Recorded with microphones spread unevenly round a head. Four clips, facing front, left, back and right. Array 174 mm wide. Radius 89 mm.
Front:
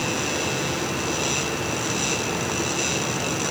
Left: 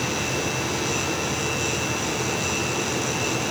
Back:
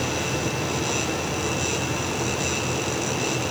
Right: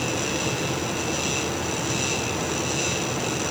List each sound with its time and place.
Only background noise.